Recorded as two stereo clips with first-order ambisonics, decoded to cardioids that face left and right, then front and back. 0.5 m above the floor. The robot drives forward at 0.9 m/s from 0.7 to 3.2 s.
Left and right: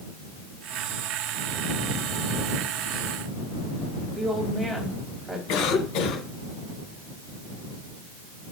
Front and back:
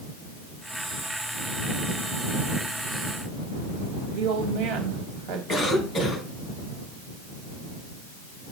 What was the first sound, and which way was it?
A woman speaking, straight behind.